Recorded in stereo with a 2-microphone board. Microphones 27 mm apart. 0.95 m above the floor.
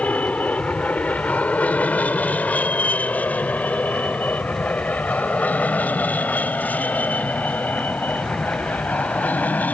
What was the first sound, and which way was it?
An aircraft, 60° left (ahead or behind).